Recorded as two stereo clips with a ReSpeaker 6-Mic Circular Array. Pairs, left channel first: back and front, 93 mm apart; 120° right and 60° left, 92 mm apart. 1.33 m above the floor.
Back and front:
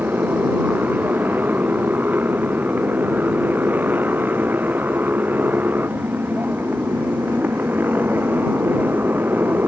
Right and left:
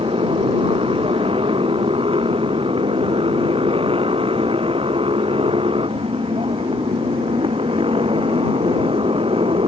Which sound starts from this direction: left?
A motorcycle, at 0.0 s.